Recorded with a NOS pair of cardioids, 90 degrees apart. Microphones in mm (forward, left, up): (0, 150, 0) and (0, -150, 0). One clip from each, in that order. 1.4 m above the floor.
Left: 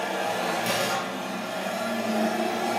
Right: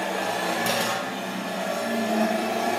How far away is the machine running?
About 0.9 m.